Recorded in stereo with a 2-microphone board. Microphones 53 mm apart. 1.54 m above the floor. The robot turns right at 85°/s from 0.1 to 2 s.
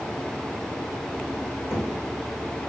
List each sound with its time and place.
1.7 s knocking: 40° left (ahead or behind), 4.5 m; by 1.9 s 60° left (ahead or behind), 4.5 m